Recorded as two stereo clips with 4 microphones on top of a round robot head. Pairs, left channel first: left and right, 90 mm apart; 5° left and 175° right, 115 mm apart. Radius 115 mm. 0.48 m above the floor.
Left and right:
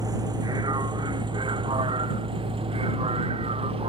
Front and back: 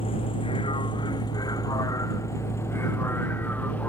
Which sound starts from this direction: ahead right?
A vehicle, at 0.0 s.